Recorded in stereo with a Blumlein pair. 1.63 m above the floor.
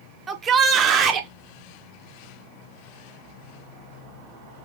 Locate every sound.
0.3 s a shout: 20° right, 0.8 m; by 1.3 s 30° right, 1.3 m